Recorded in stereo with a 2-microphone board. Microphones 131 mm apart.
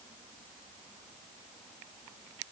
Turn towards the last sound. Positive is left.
No sound to turn to.